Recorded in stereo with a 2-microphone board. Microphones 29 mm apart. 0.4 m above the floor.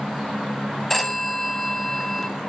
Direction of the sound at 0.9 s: 10° left (ahead or behind).